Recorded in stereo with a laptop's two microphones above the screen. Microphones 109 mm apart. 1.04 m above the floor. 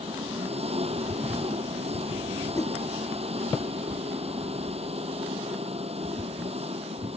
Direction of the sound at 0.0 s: 75° right (ahead or behind).